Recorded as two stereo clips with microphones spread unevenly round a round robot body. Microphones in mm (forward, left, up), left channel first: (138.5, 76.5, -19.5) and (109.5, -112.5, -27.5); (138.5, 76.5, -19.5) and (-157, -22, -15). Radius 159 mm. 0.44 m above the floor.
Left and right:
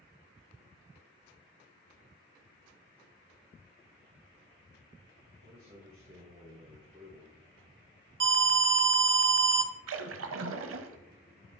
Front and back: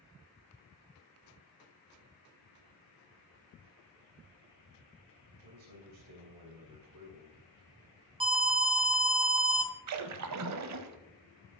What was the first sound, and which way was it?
A man speaking, 155° right.